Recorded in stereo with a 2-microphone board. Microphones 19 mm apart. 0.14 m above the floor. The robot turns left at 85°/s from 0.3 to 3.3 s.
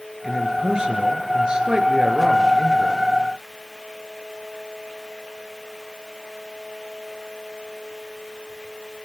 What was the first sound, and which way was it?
A man speaking, 10° right.